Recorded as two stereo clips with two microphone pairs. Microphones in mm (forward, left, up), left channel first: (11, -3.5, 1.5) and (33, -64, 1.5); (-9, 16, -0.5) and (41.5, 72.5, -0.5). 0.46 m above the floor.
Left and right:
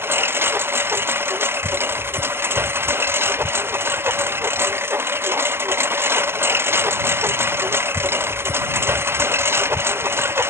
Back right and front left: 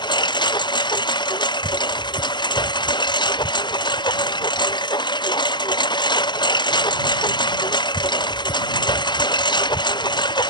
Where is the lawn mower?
120° right.